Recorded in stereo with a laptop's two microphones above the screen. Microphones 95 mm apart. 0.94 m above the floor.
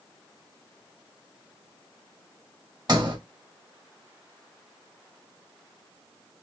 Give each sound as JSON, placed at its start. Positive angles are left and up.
{"t": 2.9, "sound": "a sliding door", "side_deg": -45, "distance_m": 1.7}